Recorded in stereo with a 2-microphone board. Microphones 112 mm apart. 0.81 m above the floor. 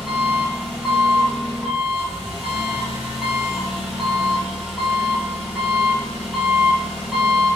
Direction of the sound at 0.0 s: 5° right (ahead or behind).